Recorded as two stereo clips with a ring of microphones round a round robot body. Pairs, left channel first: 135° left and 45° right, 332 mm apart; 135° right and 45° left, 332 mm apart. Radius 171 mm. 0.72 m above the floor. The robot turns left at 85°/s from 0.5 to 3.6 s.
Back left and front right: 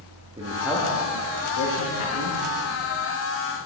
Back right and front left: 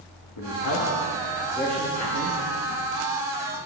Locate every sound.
0.4 s a man speaking: 115° right, 1.5 m; by 2.4 s 85° left, 1.5 m